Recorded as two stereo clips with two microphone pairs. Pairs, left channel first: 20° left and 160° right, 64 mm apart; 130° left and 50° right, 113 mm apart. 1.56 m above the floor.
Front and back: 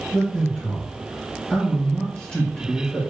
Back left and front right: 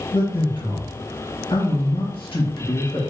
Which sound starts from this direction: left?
A man speaking, at 0.1 s.